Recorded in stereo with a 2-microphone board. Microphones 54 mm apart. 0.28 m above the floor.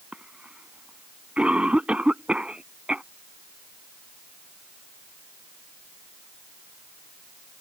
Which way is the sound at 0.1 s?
20° right (ahead or behind).